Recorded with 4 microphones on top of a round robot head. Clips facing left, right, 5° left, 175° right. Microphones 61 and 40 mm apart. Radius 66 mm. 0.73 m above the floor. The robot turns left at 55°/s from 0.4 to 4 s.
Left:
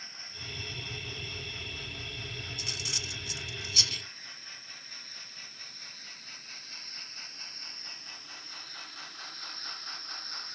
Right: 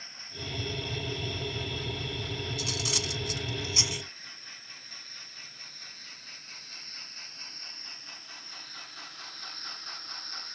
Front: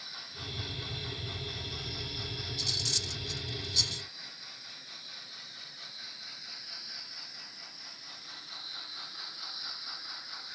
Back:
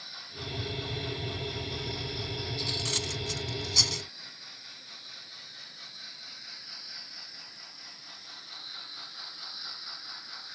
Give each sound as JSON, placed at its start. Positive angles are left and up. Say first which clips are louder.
{"t": 2.6, "sound": "cutlery clinking", "louder": "right 6 dB, back 2 dB", "azimuth_deg": -95}